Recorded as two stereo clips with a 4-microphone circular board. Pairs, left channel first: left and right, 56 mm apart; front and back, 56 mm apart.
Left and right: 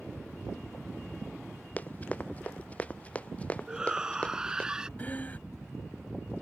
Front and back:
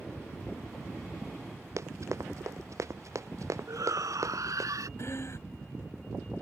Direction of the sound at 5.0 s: 30° left.